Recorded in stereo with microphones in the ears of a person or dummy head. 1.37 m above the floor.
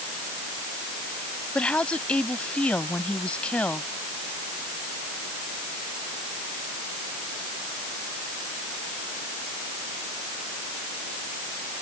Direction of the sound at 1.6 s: 5° left (ahead or behind).